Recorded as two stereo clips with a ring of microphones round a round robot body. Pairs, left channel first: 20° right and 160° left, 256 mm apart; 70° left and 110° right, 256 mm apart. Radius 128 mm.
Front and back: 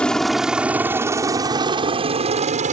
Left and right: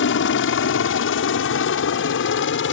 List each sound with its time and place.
0.0 s a helicopter: 65° left; by 2.7 s 100° left